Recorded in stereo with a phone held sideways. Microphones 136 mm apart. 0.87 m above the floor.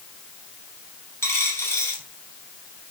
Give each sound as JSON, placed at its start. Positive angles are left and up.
{"t": 1.2, "sound": "a dropped coin", "side_deg": 15, "distance_m": 4.0}